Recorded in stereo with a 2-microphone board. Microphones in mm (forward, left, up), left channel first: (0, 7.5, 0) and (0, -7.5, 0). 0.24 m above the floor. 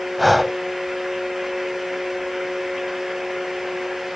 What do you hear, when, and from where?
0.2 s breathing: 5° right (ahead or behind), 0.8 m